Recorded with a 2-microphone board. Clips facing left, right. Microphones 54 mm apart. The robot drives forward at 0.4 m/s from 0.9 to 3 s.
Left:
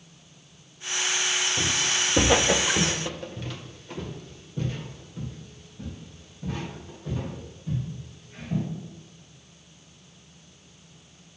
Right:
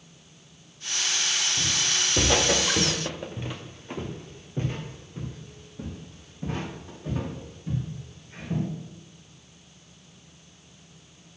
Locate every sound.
1.6 s footsteps: 35° left (ahead or behind), 1.0 m; by 8.7 s 40° right (ahead or behind), 4.5 m